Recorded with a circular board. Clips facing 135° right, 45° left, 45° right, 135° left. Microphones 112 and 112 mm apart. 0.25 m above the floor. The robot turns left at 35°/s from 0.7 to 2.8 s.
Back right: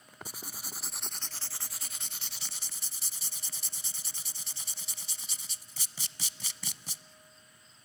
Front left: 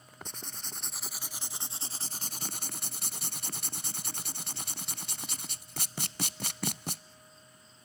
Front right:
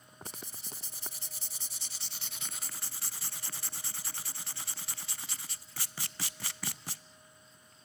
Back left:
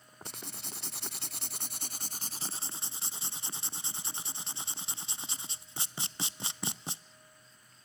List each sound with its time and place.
0.2 s writing: 145° left, 0.6 m; by 7.0 s 70° left, 0.6 m